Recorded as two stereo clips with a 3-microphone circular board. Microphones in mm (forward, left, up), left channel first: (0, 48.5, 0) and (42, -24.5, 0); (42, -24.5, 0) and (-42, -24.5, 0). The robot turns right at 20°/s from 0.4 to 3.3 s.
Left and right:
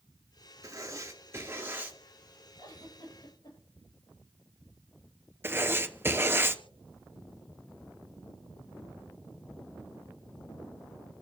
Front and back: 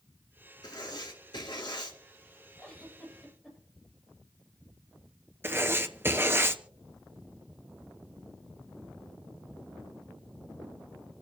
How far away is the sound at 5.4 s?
About 1.0 m.